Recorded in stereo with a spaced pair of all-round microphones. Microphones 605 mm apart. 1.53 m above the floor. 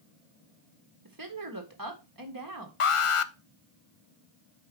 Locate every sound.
1.1 s a woman speaking: 30° right (ahead or behind), 1.6 m
2.8 s an alarm: 55° left (ahead or behind), 0.6 m